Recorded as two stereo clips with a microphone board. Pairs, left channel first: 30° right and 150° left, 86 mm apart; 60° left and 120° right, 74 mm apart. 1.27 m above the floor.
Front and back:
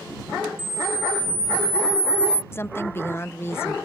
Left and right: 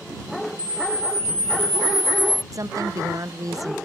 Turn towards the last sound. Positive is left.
turn(degrees=-90)